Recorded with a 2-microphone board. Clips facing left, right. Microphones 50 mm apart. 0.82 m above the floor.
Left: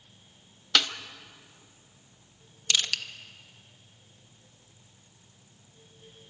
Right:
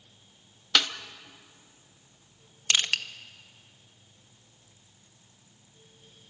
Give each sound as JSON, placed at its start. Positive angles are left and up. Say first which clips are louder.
{"t": 0.8, "sound": "a snare drum", "louder": "even", "side_deg": -5, "distance_m": 0.9}
{"t": 2.7, "sound": "crushing", "louder": "right 2 dB", "side_deg": -30, "distance_m": 0.7}